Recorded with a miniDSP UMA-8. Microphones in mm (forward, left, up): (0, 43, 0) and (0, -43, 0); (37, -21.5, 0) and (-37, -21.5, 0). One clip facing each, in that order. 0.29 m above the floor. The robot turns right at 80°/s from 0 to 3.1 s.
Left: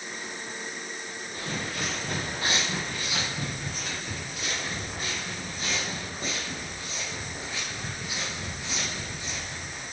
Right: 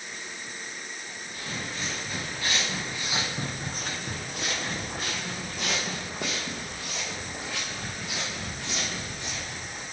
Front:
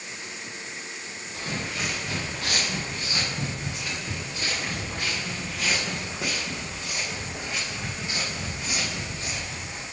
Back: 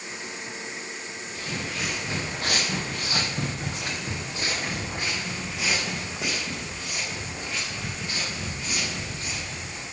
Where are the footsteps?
35° left, 2.5 m; by 9.8 s 65° right, 4 m.